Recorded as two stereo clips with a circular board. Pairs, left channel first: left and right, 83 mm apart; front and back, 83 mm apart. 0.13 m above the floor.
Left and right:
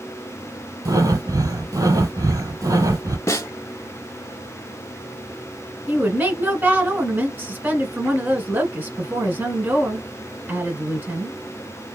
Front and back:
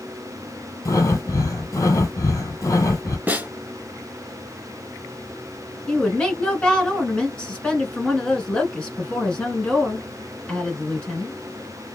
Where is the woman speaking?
65° right, 1.4 m.